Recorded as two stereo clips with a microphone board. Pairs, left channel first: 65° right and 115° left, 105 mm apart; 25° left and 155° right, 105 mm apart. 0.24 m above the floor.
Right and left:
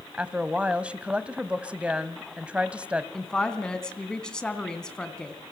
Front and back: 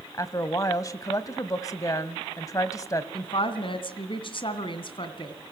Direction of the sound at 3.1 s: 15° left.